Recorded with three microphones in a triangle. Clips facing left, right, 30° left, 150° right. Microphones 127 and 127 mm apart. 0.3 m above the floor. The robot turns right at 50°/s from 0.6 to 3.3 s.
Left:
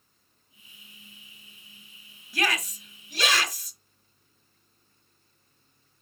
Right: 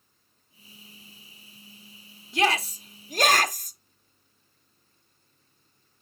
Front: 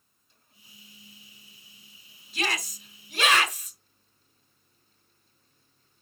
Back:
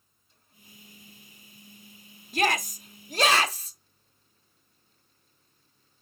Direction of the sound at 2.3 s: 150° right.